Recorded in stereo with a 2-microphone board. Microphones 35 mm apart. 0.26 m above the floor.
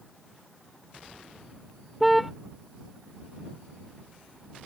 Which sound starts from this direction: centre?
A car horn, at 2.0 s.